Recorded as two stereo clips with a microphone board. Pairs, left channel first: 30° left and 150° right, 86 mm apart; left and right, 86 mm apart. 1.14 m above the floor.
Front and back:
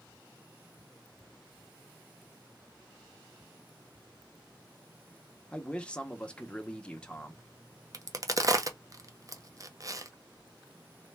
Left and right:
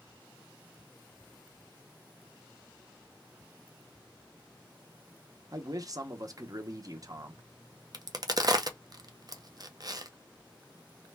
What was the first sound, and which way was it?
A man speaking, 45° right.